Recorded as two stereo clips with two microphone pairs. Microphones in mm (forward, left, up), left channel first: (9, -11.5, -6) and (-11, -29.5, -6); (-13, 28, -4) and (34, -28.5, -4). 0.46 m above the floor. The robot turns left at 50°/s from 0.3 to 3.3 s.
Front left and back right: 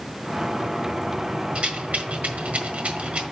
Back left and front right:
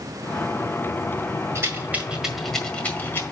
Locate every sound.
1.6 s a rattle: 95° right, 1.6 m; by 3.2 s straight behind, 1.6 m